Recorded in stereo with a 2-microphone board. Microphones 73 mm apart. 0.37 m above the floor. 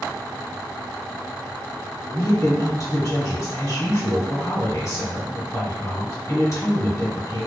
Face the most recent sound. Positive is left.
turn(degrees=35)  # may be behind; listen again after turning